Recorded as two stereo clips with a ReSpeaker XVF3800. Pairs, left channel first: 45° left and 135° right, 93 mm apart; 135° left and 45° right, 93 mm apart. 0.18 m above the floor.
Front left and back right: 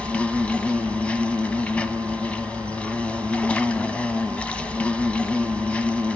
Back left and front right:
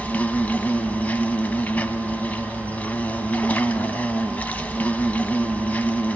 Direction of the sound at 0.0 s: 95° left.